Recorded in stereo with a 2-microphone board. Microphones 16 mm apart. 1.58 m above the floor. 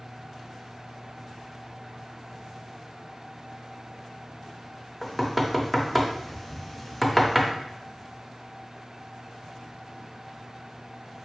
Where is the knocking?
10° left (ahead or behind), 0.5 m.